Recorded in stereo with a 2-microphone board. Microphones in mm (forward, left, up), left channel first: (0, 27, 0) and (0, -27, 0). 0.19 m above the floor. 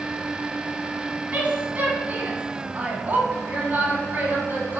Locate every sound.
1.3 s a woman speaking: 35° right (ahead or behind), 1.6 m